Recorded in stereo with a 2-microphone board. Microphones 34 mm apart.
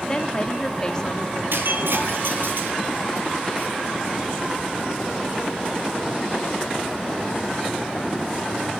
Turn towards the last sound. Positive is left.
turn(degrees=-80)